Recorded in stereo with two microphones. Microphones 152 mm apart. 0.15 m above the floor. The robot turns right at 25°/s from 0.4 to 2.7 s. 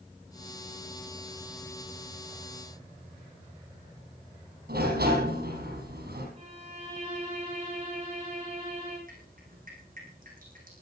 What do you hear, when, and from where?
4.7 s a sliding door: 75° right (ahead or behind), 5.5 m
6.4 s a violin: 40° right (ahead or behind), 10 m
9.1 s dripping: 60° right (ahead or behind), 8.5 m